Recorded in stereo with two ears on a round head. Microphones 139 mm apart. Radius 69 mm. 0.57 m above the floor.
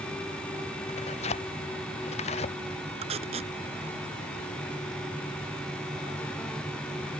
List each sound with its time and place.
0.9 s tearing paper: 40° left (ahead or behind)
3.0 s tape being pulled: 40° right (ahead or behind)